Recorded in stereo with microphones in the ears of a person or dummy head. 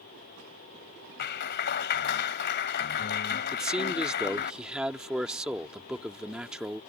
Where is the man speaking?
5° right (ahead or behind).